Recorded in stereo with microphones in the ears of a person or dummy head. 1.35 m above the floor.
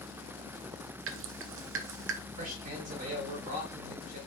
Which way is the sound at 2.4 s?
50° right (ahead or behind).